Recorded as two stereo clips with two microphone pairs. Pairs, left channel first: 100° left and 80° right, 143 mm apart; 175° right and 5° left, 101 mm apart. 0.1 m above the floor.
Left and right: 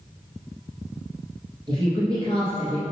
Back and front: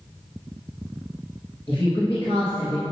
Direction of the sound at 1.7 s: 135° right.